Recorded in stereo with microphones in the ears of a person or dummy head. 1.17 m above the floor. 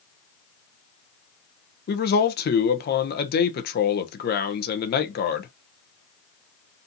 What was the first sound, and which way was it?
A man speaking, 45° left (ahead or behind).